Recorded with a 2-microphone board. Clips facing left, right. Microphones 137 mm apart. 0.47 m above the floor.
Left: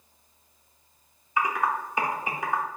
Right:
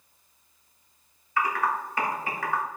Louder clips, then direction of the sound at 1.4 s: Even; 20° left (ahead or behind).